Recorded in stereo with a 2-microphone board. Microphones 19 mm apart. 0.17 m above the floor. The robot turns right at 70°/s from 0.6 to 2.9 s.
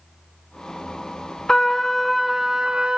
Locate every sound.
1.5 s a trumpet: 140° left, 0.5 m; by 3.0 s 120° right, 0.5 m